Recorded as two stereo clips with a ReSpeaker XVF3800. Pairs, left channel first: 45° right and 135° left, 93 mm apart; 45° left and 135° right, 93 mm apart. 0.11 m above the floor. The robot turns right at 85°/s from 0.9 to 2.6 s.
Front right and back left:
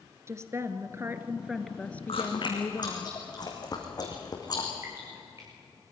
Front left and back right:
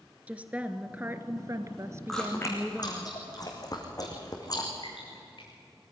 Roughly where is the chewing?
Ahead right.